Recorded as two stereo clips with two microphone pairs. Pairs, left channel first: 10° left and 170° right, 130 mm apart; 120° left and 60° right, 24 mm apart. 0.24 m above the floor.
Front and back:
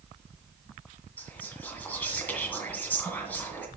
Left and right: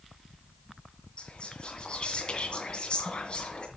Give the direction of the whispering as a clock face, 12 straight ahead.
9 o'clock.